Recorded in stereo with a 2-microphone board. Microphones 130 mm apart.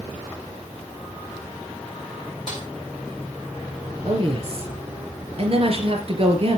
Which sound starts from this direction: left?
A snare drum, at 2.5 s.